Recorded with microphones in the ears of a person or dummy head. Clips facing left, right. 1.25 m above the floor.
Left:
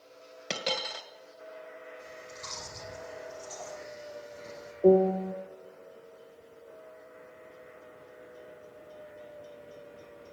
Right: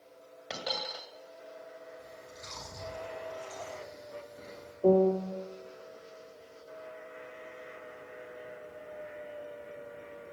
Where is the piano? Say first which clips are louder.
Left 2 dB; 15° left (ahead or behind), 0.9 m.